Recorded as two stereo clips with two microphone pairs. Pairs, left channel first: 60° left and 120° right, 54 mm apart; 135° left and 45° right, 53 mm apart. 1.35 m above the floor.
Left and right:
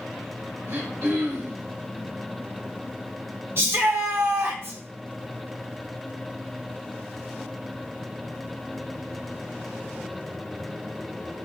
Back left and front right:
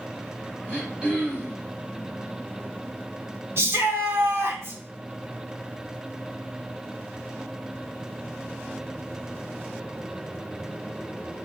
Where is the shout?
80° right, 1.3 m.